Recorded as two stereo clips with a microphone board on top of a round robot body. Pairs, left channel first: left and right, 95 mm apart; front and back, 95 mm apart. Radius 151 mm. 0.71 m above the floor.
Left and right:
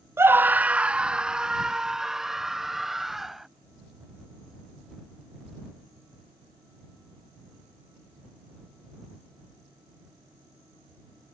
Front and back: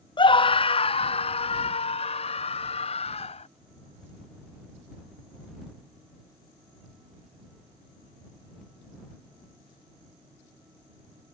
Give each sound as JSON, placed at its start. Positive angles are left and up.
{"t": 0.2, "sound": "a scream", "azimuth_deg": -30}